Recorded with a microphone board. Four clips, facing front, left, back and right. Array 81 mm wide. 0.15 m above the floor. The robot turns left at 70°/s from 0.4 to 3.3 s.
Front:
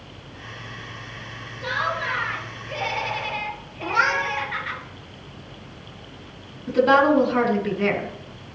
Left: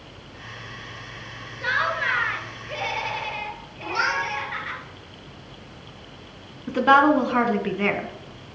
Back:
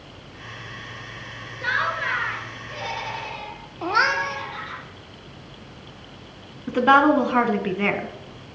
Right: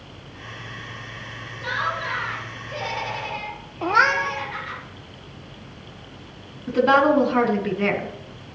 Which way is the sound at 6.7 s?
155° left.